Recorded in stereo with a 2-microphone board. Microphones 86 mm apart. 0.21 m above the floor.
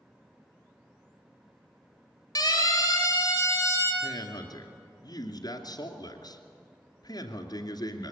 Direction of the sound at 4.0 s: 55° left (ahead or behind).